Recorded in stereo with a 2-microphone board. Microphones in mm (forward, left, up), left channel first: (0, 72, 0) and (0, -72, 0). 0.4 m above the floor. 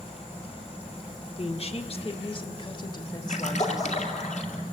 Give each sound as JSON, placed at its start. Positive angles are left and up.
{"t": 1.4, "sound": "a woman speaking", "side_deg": 45, "distance_m": 1.0}
{"t": 3.3, "sound": "a splash", "side_deg": 55, "distance_m": 2.0}